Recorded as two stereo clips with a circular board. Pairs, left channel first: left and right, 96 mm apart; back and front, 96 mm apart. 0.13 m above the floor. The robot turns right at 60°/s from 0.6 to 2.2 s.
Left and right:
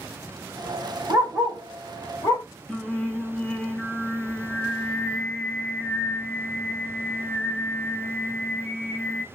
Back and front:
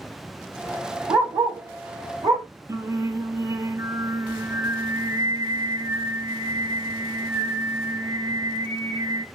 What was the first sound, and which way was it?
A dog barking, 30° right.